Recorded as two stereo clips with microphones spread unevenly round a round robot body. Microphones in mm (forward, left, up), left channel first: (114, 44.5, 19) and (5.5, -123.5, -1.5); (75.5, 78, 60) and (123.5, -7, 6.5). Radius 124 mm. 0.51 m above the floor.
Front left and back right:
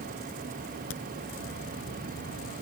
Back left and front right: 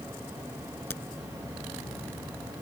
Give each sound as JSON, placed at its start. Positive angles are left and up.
{"t": 0.9, "sound": "a crack", "azimuth_deg": 50}